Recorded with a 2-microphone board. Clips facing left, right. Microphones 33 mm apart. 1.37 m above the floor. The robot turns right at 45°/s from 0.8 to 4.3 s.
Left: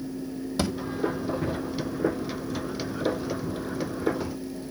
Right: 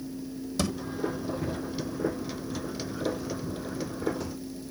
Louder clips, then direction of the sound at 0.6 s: Left 2 dB; 20° left (ahead or behind).